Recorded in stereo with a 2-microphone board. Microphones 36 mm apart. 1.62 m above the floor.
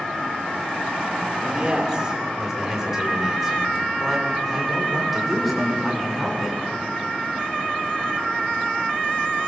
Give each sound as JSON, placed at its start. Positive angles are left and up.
{"t": 1.3, "sound": "a man speaking", "side_deg": -25, "distance_m": 6.0}